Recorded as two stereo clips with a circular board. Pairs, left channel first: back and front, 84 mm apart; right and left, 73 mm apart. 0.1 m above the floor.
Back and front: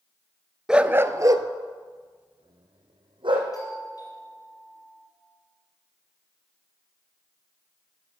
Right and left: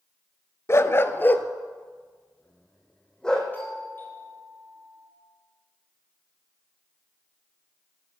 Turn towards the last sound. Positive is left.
turn(degrees=-145)